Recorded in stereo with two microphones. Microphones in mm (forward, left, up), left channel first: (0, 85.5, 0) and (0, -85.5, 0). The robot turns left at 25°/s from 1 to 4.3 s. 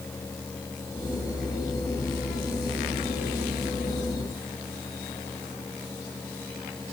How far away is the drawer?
I don't hear a drawer.